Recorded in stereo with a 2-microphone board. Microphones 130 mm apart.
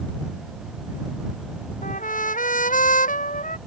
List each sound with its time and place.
1.8 s a trumpet: 80° left